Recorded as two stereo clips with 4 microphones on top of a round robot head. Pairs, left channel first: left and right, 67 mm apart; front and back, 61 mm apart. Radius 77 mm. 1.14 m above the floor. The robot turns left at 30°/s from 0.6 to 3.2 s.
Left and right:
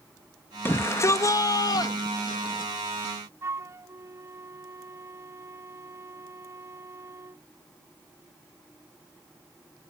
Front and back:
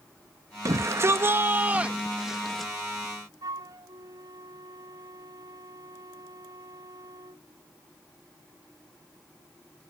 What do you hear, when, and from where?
0.7 s a shout: 145° left; by 2.7 s 85° left
3.4 s a flute: 140° right